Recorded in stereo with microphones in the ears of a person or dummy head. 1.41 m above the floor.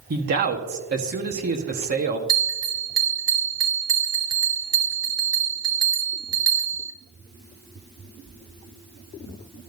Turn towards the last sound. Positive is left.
turn(degrees=-15)  # may be behind; listen again after turning